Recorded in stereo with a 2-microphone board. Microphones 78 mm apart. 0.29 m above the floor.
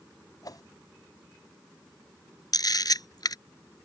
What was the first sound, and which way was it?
A whoosh, 55° left (ahead or behind).